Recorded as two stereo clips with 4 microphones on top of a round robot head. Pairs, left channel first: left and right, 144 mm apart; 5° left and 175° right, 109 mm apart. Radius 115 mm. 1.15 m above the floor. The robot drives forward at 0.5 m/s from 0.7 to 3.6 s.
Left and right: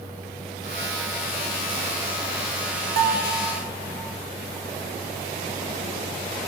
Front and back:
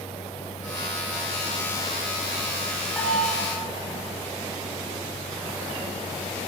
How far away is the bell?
About 1.1 m.